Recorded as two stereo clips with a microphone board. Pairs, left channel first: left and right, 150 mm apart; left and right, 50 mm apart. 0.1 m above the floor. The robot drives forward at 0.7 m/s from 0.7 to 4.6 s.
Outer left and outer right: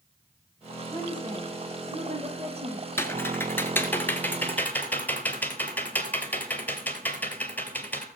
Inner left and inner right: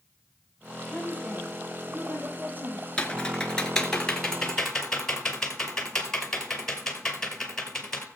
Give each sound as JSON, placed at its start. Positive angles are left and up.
{"t": 0.9, "sound": "a woman speaking", "side_deg": -30, "distance_m": 3.0}
{"t": 3.0, "sound": "typing on a keyboard", "side_deg": 15, "distance_m": 1.2}